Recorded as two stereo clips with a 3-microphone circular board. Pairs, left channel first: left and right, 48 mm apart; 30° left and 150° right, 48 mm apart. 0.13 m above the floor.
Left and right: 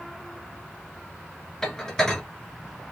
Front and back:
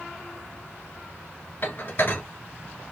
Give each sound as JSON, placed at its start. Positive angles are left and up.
{"t": 1.6, "sound": "dishes clattering", "azimuth_deg": 15, "distance_m": 1.2}